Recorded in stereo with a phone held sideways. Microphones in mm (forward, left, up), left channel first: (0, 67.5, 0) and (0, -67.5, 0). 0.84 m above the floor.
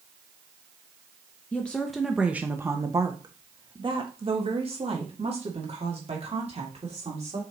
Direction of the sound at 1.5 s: 10° left (ahead or behind).